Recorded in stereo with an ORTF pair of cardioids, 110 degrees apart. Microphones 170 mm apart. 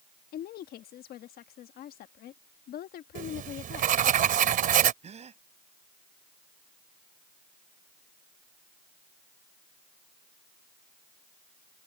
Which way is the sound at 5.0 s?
40° right.